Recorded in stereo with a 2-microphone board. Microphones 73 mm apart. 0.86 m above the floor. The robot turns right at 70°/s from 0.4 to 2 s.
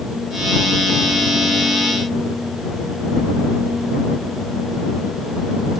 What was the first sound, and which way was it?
Only background noise.